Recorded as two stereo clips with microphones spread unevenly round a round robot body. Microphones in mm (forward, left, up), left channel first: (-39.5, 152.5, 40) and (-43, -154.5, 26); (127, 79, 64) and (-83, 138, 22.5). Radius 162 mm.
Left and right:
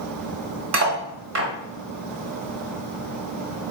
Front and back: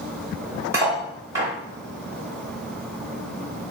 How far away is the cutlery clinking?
About 1.2 m.